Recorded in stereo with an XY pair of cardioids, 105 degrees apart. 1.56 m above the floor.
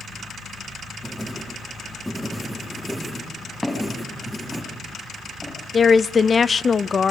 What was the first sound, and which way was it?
Writing, straight ahead.